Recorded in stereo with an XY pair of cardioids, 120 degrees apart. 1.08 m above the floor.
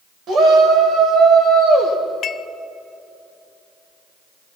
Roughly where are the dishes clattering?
Ahead left.